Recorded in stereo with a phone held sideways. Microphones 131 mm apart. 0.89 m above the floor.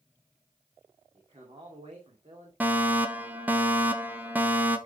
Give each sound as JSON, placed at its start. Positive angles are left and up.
{"t": 1.1, "sound": "a man speaking", "side_deg": -45, "distance_m": 2.5}
{"t": 2.6, "sound": "a fire alarm", "side_deg": -15, "distance_m": 1.2}